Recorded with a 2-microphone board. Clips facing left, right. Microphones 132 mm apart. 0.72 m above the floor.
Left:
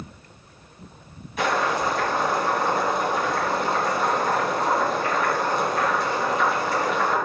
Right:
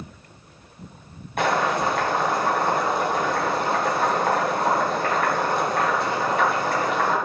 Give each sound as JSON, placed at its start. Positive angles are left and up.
{"t": 1.4, "sound": "boiling", "side_deg": -60, "distance_m": 4.0}